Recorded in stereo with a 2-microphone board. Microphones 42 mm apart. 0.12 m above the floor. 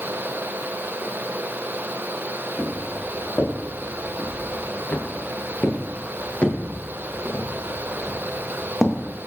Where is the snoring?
No snoring in this recording.